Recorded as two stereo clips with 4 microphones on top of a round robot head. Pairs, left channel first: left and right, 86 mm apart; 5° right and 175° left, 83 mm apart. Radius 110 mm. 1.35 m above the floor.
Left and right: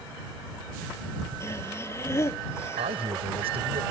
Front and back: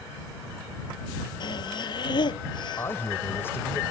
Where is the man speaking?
75° right.